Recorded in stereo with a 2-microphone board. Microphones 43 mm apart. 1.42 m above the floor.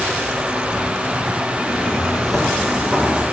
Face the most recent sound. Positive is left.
turn(degrees=-35)  # may be behind; listen again after turning